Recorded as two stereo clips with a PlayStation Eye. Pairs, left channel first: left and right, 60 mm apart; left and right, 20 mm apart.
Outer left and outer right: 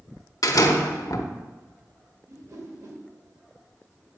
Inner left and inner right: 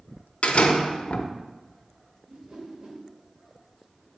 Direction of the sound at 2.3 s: 60° right (ahead or behind).